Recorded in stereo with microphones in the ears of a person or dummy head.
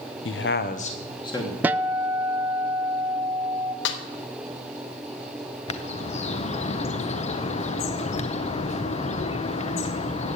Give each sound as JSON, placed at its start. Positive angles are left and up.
{"t": 0.2, "sound": "a man speaking", "side_deg": 65, "distance_m": 1.0}
{"t": 1.6, "sound": "a guitar", "side_deg": -10, "distance_m": 0.5}
{"t": 3.9, "sound": "a snare drum", "side_deg": 70, "distance_m": 1.3}
{"t": 5.7, "sound": "a bird", "side_deg": 35, "distance_m": 0.7}